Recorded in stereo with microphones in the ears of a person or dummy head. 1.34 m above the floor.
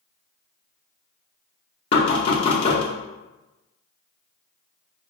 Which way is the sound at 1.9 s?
30° left (ahead or behind).